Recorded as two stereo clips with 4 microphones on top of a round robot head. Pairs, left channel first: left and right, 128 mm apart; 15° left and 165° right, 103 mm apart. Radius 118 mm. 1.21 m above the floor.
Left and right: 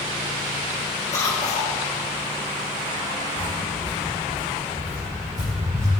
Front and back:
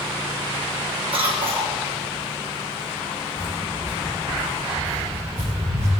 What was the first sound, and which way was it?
A cough, 160° left.